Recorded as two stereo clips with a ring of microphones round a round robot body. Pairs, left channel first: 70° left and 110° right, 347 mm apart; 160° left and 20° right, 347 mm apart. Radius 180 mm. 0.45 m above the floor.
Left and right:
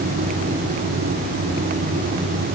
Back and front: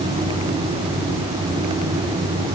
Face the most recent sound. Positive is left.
No sound to turn to.